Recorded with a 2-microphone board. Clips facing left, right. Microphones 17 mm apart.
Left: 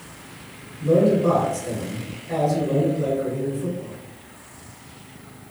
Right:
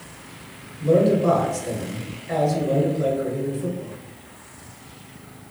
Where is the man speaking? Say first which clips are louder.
Even; 25° right (ahead or behind), 1.4 m.